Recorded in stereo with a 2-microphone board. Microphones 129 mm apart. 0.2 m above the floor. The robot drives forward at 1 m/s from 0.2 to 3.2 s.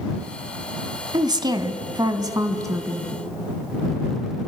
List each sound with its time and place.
1.1 s a woman speaking: 30° right (ahead or behind), 1.4 m; by 3.1 s 20° right (ahead or behind), 2.0 m